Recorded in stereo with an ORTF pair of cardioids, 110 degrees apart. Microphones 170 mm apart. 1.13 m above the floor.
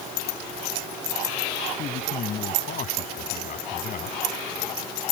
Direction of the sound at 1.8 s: 50° left.